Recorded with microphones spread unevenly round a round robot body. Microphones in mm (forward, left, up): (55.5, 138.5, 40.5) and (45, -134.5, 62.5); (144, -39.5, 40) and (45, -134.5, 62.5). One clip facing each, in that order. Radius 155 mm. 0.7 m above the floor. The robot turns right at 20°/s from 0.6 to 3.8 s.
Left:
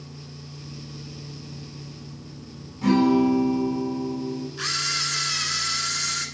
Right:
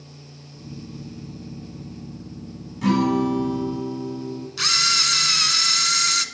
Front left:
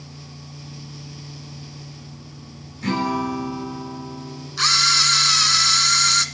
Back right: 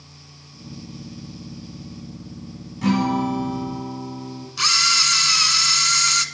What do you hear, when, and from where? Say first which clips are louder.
2.8 s a guitar: left 2 dB, back right 3 dB; 160° right, 4.5 m; by 4.5 s 140° right, 4.5 m
4.6 s a camera shutter: even, front left 2 dB; 65° right, 1.4 m